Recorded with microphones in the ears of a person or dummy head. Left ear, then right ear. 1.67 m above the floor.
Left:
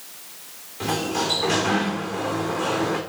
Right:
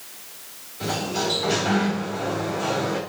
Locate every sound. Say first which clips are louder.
0.8 s a sliding door: left 1 dB; 30° left (ahead or behind), 3.5 m